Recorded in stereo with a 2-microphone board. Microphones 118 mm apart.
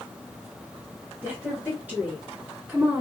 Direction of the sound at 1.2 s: 10° right (ahead or behind).